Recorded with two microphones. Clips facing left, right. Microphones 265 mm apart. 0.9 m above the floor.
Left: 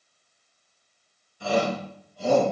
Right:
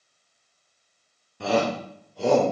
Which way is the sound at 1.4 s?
70° right (ahead or behind).